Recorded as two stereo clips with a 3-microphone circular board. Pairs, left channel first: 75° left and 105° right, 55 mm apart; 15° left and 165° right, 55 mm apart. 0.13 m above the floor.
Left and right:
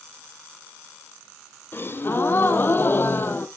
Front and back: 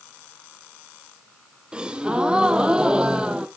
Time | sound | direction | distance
1.7 | a gasp | 120° left | 0.8 m